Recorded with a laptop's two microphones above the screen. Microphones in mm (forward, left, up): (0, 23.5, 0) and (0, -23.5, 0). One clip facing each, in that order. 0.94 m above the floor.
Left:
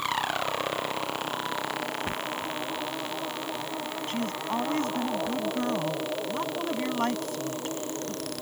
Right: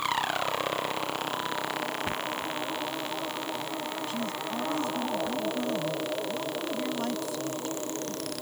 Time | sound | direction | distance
4.1 | a woman speaking | 50° left (ahead or behind) | ?